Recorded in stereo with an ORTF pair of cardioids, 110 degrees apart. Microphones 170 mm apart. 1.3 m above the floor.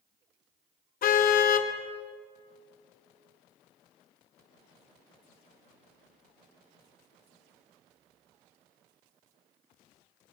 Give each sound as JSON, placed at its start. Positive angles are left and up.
{"t": 1.0, "sound": "a car horn", "azimuth_deg": 60, "distance_m": 2.5}